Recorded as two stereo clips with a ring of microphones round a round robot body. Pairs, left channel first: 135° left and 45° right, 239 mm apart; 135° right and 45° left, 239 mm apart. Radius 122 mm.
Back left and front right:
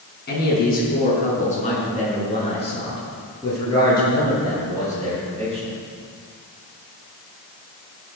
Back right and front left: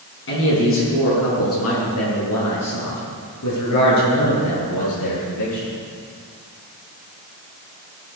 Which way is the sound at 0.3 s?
175° right.